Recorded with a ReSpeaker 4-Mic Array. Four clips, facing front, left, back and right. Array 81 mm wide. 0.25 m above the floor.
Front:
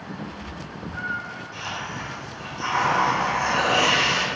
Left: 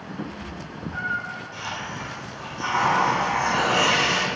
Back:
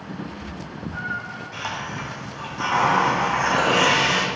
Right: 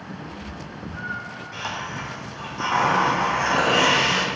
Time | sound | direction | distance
0.2 | a cat meowing | 115° left | 2.5 m
1.5 | a hiss | 140° right | 4 m